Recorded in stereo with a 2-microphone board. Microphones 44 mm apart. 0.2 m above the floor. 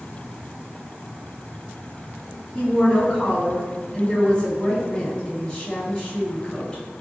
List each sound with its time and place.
2.5 s a woman speaking: 15° left (ahead or behind), 1.6 m